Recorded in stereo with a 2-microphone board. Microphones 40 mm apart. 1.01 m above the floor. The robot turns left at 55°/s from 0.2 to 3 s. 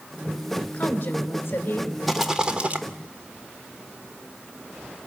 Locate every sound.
0.7 s a woman speaking: 125° left, 4 m; by 1.9 s 60° left, 4 m
2.1 s a rattle: straight ahead, 1.3 m; by 2.8 s 40° right, 1.3 m